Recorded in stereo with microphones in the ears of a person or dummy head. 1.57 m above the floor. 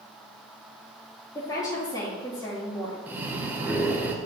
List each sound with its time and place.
1.4 s a woman speaking: 20° left (ahead or behind), 2.5 m
3.1 s breathing: 10° right (ahead or behind), 0.9 m